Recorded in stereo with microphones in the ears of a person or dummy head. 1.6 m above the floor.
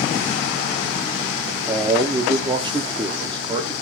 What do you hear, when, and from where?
1.7 s a man speaking: 25° right (ahead or behind), 0.8 m